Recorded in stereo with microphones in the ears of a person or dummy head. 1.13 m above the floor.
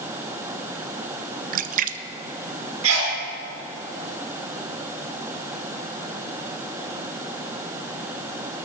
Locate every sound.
1.5 s a splash: 40° right (ahead or behind), 0.5 m
2.8 s a sneeze: 85° right, 5.5 m